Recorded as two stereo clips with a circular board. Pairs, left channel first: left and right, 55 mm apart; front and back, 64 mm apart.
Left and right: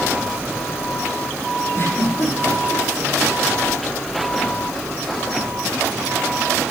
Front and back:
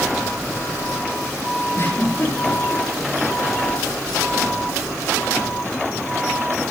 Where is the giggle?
50° left, 9 m.